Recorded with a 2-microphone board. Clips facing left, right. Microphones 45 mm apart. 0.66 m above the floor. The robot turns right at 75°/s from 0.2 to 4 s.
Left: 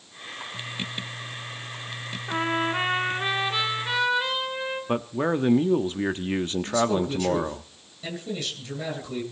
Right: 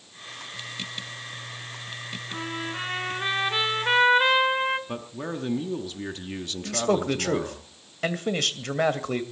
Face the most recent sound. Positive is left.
turn(degrees=-65)  # may be behind; listen again after turning